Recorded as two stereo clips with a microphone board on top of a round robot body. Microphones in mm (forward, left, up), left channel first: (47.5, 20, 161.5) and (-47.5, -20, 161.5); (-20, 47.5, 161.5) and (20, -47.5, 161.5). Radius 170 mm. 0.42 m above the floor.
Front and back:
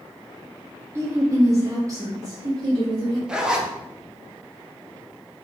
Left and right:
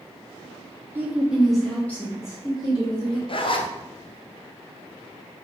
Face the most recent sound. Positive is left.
turn(degrees=120)